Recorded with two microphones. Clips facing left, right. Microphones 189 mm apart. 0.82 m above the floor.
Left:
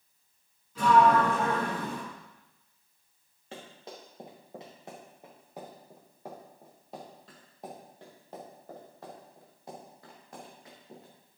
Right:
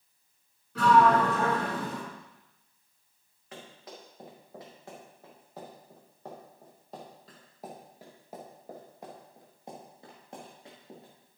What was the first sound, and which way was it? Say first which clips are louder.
A sliding door: even; 70° right (ahead or behind).